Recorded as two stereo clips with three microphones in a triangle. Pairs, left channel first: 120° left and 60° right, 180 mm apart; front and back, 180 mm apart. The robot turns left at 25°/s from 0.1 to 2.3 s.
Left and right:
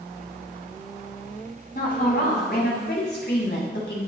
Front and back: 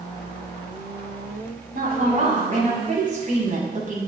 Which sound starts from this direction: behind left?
A woman speaking, at 1.7 s.